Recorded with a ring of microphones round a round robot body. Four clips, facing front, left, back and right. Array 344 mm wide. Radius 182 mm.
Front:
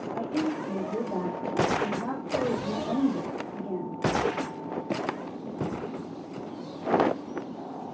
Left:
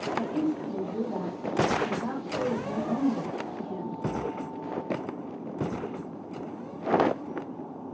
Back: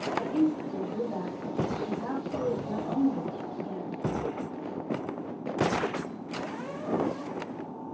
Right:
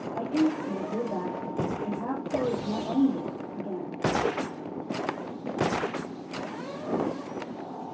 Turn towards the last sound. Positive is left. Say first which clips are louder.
# right 5 dB, back 2 dB
turn(degrees=-60)